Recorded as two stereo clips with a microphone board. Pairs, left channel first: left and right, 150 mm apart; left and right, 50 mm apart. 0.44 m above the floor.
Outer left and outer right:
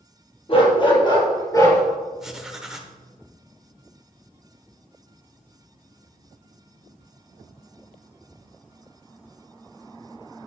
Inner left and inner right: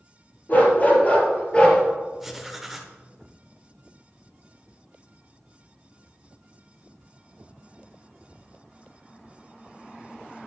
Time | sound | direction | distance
0.5 | a dog barking | 40° left (ahead or behind) | 3.5 m
2.2 | writing | 5° right (ahead or behind) | 1.2 m